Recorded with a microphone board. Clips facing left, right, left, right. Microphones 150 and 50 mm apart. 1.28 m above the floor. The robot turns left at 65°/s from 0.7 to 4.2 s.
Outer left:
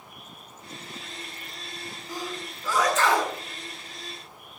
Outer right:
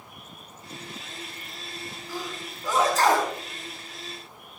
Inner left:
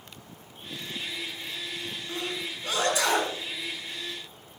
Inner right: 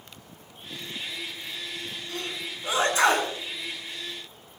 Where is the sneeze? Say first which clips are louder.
Outer left 1 dB, inner left 2 dB; 20° left (ahead or behind), 8.5 m; by 3.3 s 60° right (ahead or behind), 8.5 m.